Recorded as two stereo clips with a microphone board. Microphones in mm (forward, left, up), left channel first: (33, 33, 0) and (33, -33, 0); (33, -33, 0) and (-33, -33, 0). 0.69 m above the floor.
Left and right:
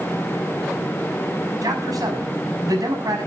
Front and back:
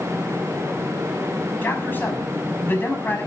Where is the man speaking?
60° right, 6 m.